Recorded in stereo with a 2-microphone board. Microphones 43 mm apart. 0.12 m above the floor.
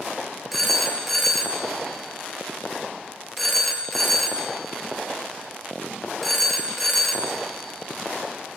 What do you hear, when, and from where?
0.5 s a phone ringing: centre (ahead or behind), 1.3 m